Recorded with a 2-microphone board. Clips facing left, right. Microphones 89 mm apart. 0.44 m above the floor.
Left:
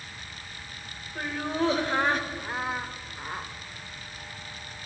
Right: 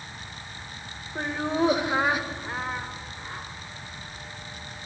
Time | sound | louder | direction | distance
1.1 | laughter | right 3 dB | 25° right (ahead or behind) | 2 m